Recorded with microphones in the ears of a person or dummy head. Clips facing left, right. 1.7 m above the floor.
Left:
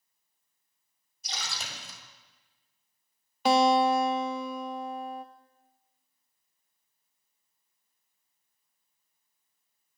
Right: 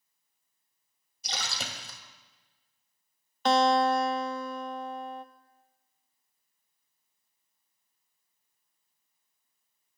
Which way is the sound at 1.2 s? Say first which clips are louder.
Right 3 dB; 60° right (ahead or behind).